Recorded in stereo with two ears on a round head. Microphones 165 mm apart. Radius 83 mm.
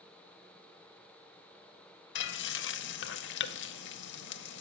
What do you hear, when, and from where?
2.1 s frying: 65° left (ahead or behind), 0.6 m